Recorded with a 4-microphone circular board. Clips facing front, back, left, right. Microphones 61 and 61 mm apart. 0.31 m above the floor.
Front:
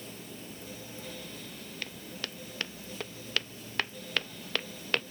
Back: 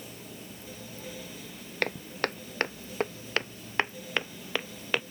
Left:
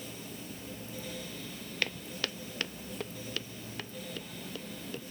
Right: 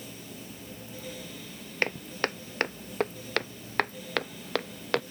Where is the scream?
I don't hear a scream.